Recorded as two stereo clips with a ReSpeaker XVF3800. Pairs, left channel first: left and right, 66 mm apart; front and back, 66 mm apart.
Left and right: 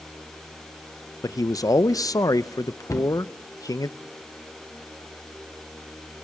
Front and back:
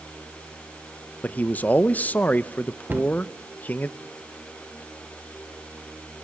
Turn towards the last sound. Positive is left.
turn(degrees=125)